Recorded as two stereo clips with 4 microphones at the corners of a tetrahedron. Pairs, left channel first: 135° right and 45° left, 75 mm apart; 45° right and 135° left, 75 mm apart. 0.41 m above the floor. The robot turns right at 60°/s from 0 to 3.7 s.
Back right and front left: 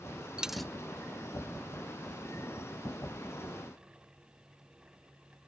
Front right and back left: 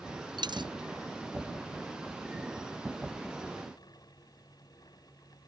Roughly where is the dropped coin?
Behind left.